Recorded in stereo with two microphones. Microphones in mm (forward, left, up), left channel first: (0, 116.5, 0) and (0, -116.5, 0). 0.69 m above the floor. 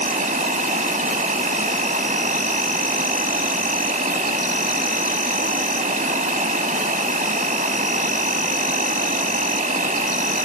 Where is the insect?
35° right (ahead or behind), 1.3 m.